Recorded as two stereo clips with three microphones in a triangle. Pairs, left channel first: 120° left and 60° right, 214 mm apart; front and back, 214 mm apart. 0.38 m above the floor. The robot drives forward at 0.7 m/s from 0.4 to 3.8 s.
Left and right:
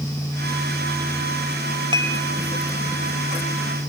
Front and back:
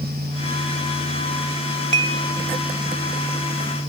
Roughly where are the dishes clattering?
Ahead.